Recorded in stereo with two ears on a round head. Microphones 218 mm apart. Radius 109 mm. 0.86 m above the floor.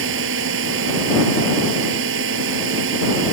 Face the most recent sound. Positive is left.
turn(degrees=-55)  # may be behind; listen again after turning